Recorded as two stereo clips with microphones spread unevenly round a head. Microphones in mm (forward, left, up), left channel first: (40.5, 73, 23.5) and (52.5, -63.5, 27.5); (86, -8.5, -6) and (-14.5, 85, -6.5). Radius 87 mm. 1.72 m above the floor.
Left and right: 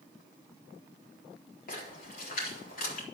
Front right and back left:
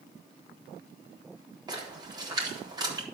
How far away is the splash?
About 4 m.